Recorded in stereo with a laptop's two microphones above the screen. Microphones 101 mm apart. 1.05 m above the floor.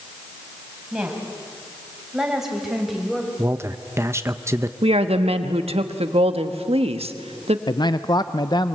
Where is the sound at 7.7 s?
45° left (ahead or behind), 0.7 m.